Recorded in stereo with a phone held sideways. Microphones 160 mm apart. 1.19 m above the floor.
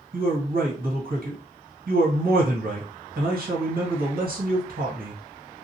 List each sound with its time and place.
0.1 s a man speaking: 70° right (ahead or behind), 1.4 m